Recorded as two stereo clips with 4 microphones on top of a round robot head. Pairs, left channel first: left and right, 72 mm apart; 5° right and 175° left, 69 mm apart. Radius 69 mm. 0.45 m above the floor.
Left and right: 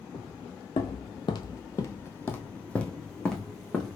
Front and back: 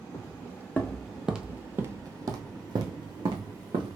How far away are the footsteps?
About 1.0 m.